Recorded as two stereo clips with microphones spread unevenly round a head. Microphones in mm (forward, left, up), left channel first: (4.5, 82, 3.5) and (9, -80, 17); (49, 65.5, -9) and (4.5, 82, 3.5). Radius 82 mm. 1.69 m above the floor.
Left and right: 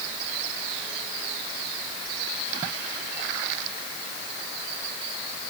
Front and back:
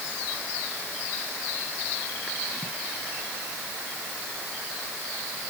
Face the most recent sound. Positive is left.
No sound to turn to.